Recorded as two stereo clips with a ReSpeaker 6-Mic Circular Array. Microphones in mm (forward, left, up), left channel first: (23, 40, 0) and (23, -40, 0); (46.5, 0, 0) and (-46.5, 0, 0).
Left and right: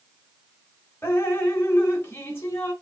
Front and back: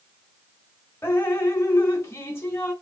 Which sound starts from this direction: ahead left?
Dripping, at 1.0 s.